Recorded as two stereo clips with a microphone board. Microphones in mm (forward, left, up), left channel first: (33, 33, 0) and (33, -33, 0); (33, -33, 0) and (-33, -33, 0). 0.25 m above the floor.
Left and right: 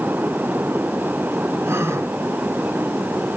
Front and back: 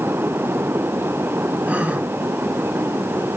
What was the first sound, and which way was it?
A gasp, 120° right.